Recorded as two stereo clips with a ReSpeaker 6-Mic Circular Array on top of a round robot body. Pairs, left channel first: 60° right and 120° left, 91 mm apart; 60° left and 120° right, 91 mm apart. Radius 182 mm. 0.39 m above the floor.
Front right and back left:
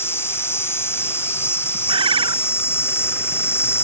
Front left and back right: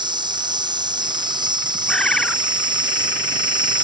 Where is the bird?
145° left.